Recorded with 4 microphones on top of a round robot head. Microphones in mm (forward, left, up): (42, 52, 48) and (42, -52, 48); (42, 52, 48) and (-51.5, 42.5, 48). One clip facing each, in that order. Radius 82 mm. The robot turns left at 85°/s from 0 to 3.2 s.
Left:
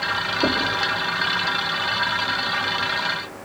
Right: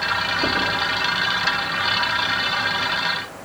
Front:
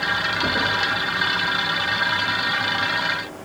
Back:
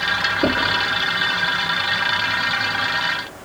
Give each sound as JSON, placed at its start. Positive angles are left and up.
{"t": 0.4, "sound": "knocking", "azimuth_deg": 145, "distance_m": 5.0}